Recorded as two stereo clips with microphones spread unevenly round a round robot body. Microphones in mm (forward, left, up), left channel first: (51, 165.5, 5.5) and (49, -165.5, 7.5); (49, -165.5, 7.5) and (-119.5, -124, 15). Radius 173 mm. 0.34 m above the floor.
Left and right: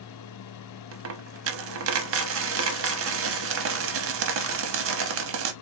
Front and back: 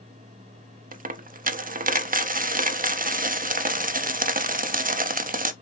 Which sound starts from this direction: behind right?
A dropped coin, at 0.9 s.